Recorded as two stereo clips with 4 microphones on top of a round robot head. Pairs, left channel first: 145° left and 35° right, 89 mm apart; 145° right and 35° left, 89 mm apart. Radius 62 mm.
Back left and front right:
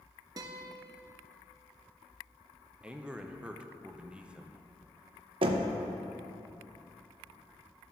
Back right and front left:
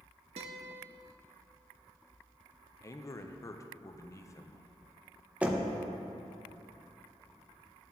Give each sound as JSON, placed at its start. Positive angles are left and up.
{"t": 0.4, "sound": "a guitar", "azimuth_deg": 20, "distance_m": 0.8}
{"t": 2.8, "sound": "a man speaking", "azimuth_deg": -105, "distance_m": 0.7}
{"t": 5.4, "sound": "knocking", "azimuth_deg": -45, "distance_m": 0.8}